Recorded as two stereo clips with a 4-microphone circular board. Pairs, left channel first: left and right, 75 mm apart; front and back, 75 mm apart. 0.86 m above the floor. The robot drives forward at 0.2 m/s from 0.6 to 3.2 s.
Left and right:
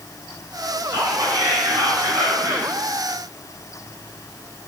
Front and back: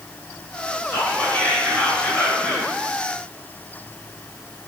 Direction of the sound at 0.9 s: 65° right.